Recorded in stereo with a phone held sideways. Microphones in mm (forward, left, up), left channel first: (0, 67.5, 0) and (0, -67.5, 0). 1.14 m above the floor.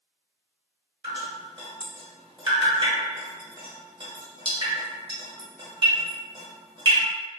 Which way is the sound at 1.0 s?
35° right (ahead or behind).